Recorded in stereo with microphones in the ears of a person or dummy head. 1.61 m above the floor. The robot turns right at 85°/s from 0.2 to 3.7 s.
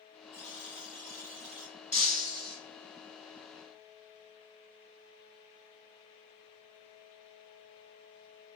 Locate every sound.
0.3 s a buzzer: 160° right, 1.4 m; by 1.8 s 40° right, 1.4 m
1.9 s breaking glass: 5° left (ahead or behind), 0.8 m; by 2.6 s 15° left (ahead or behind), 0.8 m